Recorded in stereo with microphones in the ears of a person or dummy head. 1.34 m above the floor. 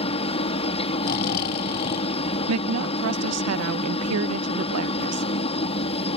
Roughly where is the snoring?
Left.